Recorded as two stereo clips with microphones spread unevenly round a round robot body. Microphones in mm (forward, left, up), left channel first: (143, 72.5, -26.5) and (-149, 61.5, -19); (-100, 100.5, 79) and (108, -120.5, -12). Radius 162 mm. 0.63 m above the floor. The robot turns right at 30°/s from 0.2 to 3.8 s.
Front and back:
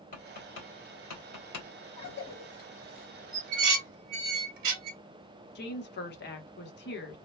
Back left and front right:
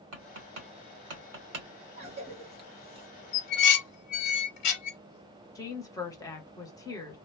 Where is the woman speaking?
40° left, 0.9 m.